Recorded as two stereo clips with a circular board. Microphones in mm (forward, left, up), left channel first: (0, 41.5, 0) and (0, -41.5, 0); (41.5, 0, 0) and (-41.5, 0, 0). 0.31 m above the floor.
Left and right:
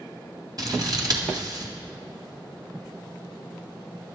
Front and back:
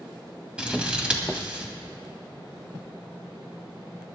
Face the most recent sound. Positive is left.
turn(degrees=-105)